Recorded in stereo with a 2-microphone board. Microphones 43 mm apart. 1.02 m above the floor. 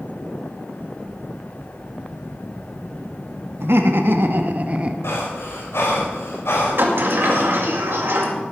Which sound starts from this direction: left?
Breathing, at 5.0 s.